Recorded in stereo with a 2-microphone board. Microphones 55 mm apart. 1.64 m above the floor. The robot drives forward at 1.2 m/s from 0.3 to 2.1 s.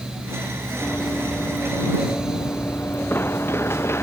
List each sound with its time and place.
0.8 s running footsteps: 40° left (ahead or behind); by 4.0 s 50° left (ahead or behind)